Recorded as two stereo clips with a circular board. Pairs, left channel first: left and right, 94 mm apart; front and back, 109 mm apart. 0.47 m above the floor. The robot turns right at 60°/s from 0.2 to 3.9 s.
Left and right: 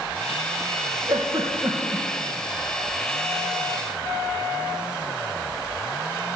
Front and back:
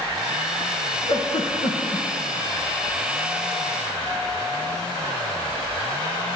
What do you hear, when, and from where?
1.1 s a giggle: 55° right, 3 m; by 2.1 s straight ahead, 3 m